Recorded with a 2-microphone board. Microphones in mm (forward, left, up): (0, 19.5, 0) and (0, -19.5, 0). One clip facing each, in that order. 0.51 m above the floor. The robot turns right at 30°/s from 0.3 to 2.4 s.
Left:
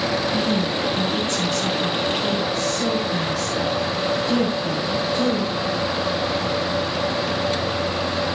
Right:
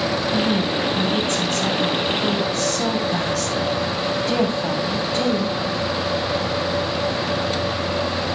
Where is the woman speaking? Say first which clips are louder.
Right 1 dB; 160° right, 3 m; by 5.6 s 95° right, 3 m.